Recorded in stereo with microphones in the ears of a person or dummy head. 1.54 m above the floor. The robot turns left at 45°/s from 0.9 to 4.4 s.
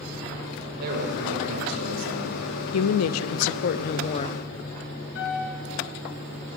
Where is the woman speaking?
95° left, 0.5 m; by 4.4 s 20° left, 0.5 m.